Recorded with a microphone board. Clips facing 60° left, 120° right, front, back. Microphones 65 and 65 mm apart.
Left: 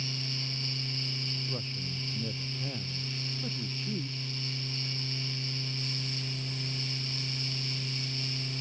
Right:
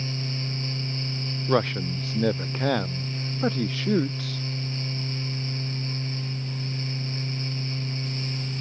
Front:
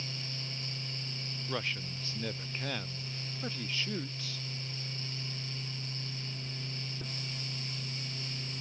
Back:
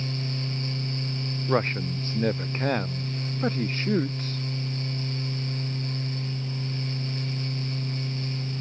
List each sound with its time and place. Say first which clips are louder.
1.5 s a man speaking: right 15 dB, back 12 dB; 130° right